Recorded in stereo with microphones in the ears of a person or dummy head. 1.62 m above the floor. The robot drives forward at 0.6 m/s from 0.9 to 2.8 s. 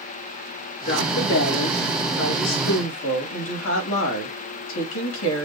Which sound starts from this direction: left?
A woman speaking, at 0.9 s.